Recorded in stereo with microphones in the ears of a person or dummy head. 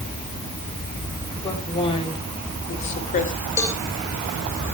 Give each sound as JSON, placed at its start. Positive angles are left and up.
{"t": 1.4, "sound": "a woman speaking", "side_deg": 25, "distance_m": 4.5}
{"t": 3.6, "sound": "a cowbell", "side_deg": 10, "distance_m": 2.5}